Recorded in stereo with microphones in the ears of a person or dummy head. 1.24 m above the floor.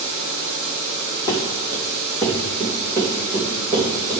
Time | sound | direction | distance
1.3 | running footsteps | 20° left (ahead or behind) | 2 m